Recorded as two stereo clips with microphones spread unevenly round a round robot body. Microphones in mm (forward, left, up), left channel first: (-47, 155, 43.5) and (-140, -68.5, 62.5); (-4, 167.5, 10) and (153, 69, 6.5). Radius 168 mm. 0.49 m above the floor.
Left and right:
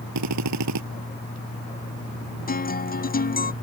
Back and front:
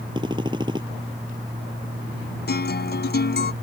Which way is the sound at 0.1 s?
110° right.